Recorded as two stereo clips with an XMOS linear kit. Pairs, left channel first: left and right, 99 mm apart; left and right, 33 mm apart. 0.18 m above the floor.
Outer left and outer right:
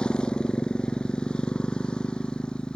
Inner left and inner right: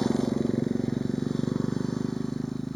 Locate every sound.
0.0 s a motorcycle: 10° left (ahead or behind)